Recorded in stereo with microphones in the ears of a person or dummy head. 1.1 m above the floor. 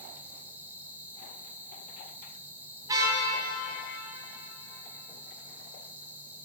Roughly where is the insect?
Centre.